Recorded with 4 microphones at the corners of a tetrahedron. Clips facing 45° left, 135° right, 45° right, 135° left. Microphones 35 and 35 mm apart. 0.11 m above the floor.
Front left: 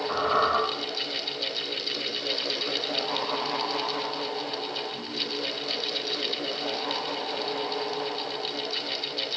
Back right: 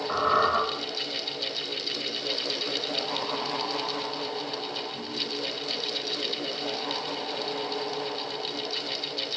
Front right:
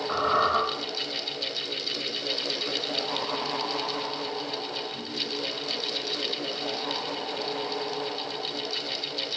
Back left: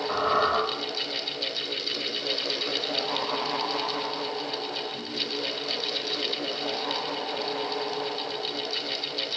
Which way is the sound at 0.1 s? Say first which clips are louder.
Back right 1 dB, even; 100° left.